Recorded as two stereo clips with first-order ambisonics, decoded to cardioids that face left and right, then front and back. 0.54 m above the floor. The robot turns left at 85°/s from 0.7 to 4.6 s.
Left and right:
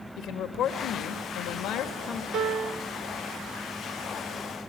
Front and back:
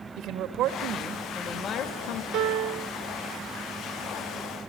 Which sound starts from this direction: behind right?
A piano, at 2.3 s.